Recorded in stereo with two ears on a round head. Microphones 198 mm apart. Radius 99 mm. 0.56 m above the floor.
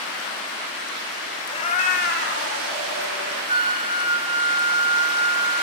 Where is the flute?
25° right (ahead or behind), 0.7 m.